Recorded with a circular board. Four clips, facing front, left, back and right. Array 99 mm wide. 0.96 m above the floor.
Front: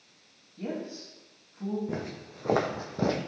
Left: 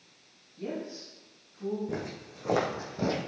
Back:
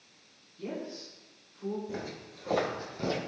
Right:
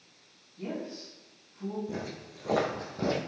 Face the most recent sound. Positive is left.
turn(degrees=0)